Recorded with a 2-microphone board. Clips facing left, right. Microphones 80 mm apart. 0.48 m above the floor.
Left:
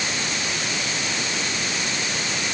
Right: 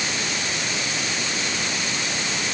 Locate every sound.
Only background noise.